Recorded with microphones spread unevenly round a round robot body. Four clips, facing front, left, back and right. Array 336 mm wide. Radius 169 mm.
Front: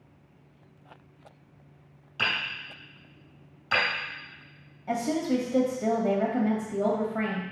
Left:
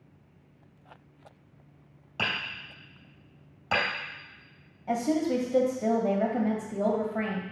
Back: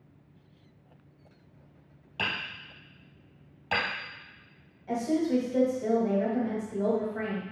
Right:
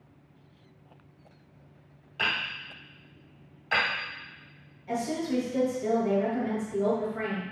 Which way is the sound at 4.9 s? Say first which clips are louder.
Left 3 dB, even; 45° left.